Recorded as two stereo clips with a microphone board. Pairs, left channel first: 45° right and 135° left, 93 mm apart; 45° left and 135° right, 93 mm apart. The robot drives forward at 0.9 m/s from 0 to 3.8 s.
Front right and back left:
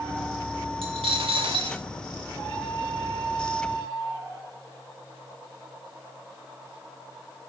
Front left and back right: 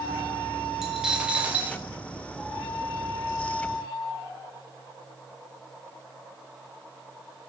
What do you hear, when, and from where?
0.8 s a dropped coin: 140° left, 1.9 m; by 1.8 s 150° left, 2.5 m